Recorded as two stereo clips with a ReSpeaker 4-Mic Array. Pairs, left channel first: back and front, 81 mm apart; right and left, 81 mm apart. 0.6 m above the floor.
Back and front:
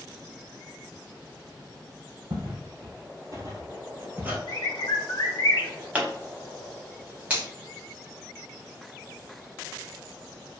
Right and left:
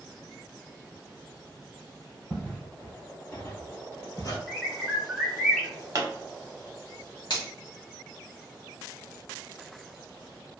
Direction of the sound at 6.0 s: 65° left.